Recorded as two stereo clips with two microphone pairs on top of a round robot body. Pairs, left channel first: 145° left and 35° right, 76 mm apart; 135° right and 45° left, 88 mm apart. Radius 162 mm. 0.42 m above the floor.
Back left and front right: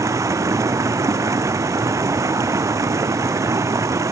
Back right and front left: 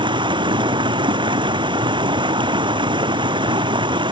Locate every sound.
0.0 s running water: 15° left